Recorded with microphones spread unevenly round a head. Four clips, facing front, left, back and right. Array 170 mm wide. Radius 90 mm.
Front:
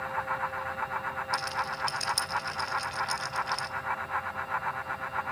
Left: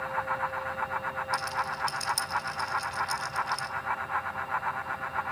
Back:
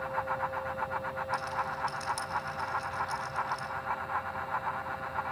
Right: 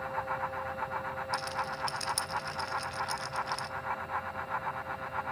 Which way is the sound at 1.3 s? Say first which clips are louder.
Left 4 dB, front 1 dB; 25° right.